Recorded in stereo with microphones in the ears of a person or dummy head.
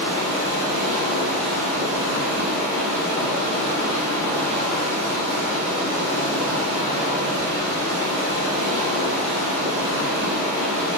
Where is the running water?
40° right (ahead or behind), 3 m.